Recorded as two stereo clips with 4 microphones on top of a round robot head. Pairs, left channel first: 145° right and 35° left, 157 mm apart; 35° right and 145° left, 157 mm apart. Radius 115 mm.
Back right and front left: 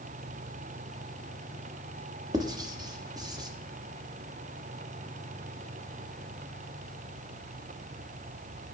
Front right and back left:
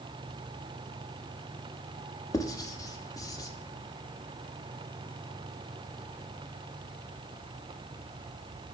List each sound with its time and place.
2.3 s writing: 5° left, 1.4 m